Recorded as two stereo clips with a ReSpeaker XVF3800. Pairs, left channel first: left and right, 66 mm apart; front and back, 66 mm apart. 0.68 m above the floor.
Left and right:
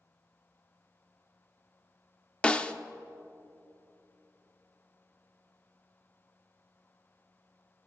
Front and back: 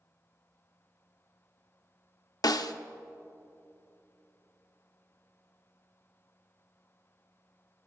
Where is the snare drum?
15° left, 0.5 m.